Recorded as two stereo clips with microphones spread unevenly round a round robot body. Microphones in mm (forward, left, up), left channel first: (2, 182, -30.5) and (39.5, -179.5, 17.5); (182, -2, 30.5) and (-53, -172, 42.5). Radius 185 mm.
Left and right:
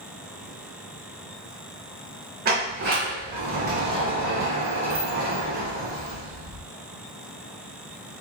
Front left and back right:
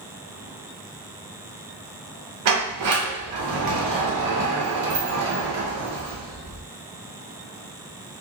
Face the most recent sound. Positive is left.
turn(degrees=-155)